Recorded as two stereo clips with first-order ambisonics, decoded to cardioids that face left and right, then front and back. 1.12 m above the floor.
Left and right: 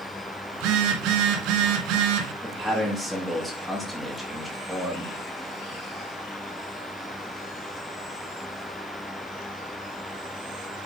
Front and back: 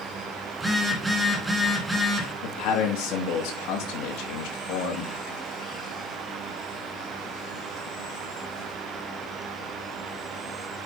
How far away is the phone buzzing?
About 1.7 m.